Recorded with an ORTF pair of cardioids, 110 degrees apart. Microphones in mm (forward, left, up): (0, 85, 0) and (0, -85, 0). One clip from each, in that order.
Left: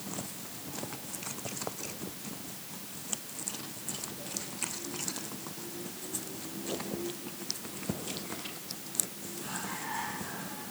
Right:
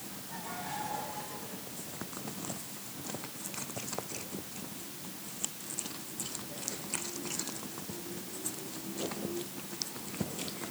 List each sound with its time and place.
Only background noise.